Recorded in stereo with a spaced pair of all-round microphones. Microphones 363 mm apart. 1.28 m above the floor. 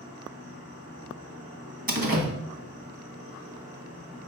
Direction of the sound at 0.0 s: 75° right (ahead or behind).